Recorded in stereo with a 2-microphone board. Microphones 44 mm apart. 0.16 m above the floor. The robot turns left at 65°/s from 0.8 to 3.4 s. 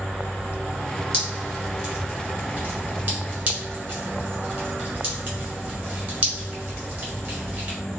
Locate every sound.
1.1 s dripping: 20° left (ahead or behind), 2 m; by 7.8 s 40° right (ahead or behind), 2 m